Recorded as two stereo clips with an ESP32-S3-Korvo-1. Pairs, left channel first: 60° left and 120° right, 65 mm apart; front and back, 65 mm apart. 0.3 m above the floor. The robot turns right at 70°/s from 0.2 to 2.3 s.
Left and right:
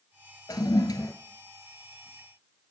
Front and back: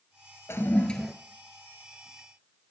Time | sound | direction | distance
0.5 | a toilet flushing | 50° left | 0.9 m